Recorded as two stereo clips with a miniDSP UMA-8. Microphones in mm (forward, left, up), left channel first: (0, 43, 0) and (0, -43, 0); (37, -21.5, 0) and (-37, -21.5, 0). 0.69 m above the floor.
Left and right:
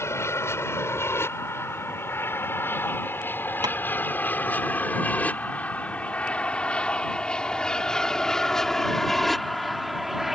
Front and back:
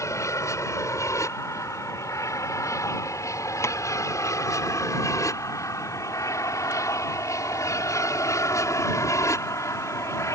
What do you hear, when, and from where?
0.0 s an aircraft: 35° left; by 10.3 s 5° right
3.6 s tapping: 50° right